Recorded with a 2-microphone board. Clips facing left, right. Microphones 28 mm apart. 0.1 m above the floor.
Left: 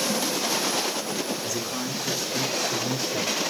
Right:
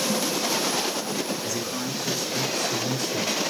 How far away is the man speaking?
About 4.5 m.